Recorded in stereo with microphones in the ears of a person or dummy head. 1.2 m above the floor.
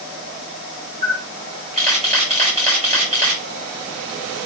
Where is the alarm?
No alarm in this recording.